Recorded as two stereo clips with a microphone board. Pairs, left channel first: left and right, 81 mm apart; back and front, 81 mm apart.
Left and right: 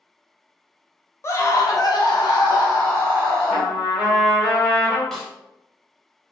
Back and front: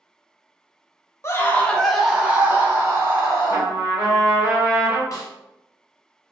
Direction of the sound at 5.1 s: 175° left.